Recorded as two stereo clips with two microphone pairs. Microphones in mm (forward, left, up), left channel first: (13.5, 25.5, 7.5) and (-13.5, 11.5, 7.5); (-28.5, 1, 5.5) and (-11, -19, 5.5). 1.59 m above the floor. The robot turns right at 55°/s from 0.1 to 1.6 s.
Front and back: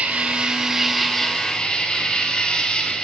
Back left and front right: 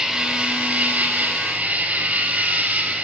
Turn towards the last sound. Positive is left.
turn(degrees=-30)